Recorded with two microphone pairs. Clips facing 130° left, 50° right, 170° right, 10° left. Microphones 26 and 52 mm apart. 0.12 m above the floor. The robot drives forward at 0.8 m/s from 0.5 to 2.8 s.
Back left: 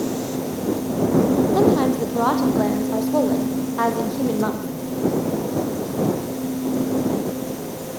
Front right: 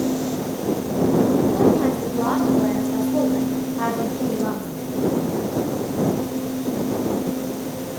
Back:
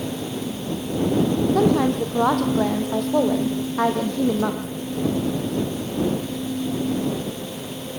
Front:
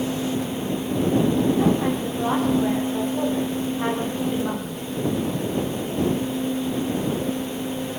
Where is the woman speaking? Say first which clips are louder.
Back left 1 dB, back 2 dB; 175° left, 6 m.